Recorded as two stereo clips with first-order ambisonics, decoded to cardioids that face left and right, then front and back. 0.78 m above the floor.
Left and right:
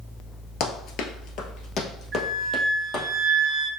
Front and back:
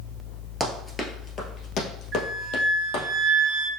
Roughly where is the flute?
Behind right.